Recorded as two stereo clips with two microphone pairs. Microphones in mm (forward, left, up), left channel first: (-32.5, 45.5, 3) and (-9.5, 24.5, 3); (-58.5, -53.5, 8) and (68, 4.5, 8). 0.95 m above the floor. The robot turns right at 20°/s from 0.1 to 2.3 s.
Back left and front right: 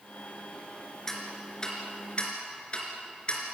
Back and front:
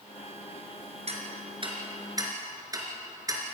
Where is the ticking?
65° left, 3.5 m; by 3.5 s 90° left, 3.5 m.